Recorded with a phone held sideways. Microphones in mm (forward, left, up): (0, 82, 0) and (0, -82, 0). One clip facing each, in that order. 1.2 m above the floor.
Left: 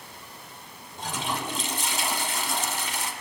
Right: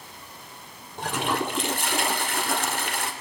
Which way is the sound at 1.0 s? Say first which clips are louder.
Right 5 dB; 65° right (ahead or behind).